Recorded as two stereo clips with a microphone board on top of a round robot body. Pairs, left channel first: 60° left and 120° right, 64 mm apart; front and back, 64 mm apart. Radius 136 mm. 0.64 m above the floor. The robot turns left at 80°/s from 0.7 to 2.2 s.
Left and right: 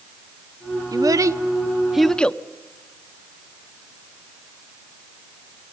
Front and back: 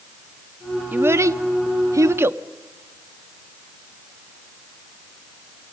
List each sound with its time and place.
0.9 s a child speaking: 120° right, 0.9 m; by 2.4 s 135° left, 0.9 m